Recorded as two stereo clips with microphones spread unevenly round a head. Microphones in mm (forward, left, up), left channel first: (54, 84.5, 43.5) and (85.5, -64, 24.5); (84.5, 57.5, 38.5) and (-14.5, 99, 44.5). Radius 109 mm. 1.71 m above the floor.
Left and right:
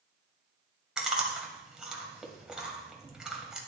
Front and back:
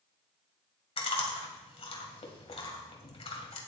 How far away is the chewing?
About 2 m.